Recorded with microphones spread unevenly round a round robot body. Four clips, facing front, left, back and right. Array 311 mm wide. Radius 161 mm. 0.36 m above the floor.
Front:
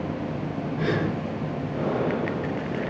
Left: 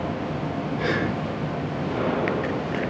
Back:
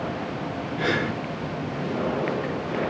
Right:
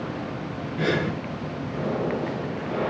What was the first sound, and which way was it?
Breathing, 90° right.